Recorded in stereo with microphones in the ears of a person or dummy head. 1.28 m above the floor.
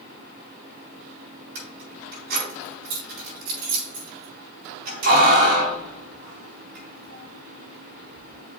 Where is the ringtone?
I don't hear a ringtone.